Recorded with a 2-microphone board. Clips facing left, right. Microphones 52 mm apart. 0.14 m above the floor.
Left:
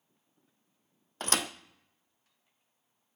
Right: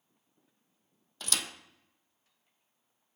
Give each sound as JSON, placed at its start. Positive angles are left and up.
{"t": 1.2, "sound": "a thud", "side_deg": 40, "distance_m": 0.5}